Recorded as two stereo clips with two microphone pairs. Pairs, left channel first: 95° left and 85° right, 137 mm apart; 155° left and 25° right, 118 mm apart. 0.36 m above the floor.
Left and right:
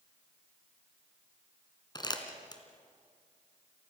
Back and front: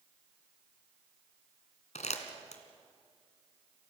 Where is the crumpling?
150° left, 3 m.